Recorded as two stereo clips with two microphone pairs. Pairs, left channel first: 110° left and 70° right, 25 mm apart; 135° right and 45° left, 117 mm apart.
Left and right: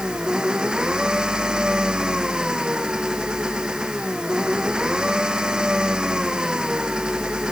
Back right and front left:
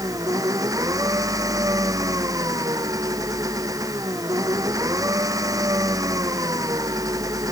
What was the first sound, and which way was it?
An engine running, 15° right.